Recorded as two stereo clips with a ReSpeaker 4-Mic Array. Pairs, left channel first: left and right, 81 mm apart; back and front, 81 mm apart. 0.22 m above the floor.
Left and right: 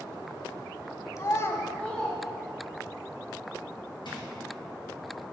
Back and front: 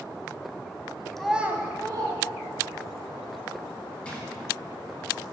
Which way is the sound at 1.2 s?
95° left.